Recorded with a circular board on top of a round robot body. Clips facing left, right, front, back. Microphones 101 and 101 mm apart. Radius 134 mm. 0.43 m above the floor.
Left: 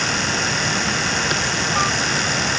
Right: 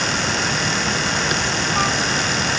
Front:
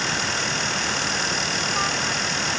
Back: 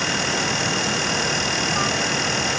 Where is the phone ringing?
I don't hear a phone ringing.